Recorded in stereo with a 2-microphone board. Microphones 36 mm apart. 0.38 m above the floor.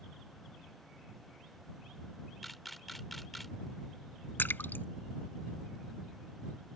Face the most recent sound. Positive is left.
turn(degrees=80)